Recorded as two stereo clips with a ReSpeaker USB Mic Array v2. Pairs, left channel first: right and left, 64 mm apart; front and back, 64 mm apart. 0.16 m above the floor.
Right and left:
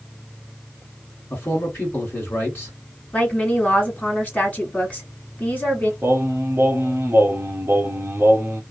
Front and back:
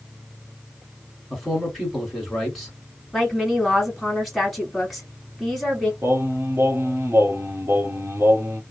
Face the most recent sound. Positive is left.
turn(degrees=140)